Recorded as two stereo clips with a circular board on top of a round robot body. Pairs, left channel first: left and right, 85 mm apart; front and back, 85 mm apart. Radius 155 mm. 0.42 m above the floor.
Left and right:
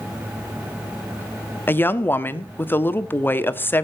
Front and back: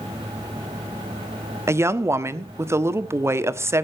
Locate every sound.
1.7 s a woman speaking: 140° left, 1.5 m